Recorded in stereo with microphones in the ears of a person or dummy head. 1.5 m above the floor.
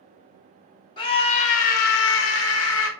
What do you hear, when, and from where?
1.0 s a scream: 25° left (ahead or behind), 0.8 m; by 2.9 s 60° left (ahead or behind), 0.7 m